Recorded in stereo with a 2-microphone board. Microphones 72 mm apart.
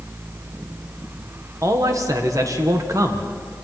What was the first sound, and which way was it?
A man speaking, 45° right (ahead or behind).